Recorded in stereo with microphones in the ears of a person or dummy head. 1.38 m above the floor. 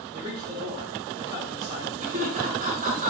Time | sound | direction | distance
0.1 | a man speaking | 35° right (ahead or behind) | 3.5 m
2.0 | laughter | 50° right (ahead or behind) | 1.5 m